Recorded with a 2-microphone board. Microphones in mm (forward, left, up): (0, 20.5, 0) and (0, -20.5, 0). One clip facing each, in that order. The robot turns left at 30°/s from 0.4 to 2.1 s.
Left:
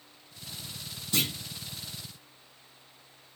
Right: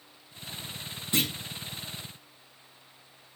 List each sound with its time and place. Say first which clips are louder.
1.1 s a clunk: right 1 dB; 25° right (ahead or behind), 6 m; by 1.3 s 20° right (ahead or behind), 6 m